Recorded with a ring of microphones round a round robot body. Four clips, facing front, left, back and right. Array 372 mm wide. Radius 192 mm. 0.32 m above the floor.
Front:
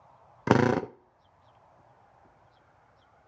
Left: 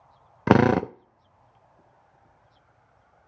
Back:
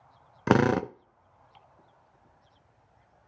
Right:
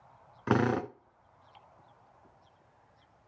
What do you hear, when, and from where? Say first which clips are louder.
0.5 s a drill: left 9 dB, even; 95° left, 0.7 m